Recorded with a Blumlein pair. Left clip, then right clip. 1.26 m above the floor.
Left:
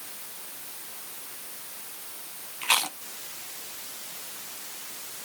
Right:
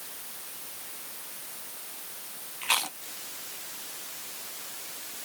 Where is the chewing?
10° left.